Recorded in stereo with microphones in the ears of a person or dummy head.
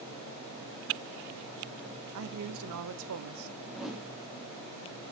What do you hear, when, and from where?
2.1 s a man speaking: 60° right (ahead or behind), 0.7 m
3.7 s a whoosh: 5° left (ahead or behind), 2 m